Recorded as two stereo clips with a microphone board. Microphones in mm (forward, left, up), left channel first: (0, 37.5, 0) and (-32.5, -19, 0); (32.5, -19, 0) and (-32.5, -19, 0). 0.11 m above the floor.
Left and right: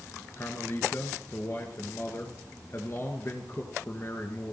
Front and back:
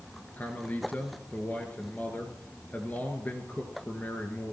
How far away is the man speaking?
About 2 m.